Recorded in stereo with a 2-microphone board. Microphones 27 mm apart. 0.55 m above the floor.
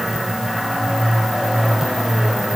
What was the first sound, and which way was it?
Only background noise.